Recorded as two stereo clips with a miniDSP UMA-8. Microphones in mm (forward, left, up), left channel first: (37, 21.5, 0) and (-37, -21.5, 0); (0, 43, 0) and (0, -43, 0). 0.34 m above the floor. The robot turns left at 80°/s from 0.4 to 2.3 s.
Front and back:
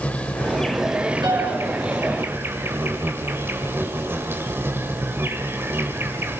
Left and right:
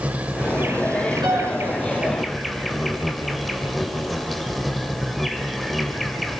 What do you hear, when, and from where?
0.0 s an insect: 30° right, 1.6 m; by 6.4 s straight behind, 1.6 m
1.2 s a piano: 115° right, 4.5 m; by 1.6 s 145° right, 4.5 m